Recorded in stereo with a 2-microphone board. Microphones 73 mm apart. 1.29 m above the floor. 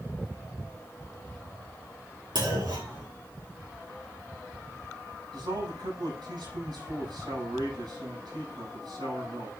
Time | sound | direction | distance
2.4 | a clunk | 90° right | 2.5 m
5.3 | a man speaking | 80° right | 6.5 m